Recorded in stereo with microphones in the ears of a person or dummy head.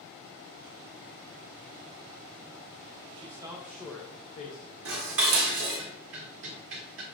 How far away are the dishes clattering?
About 1.4 m.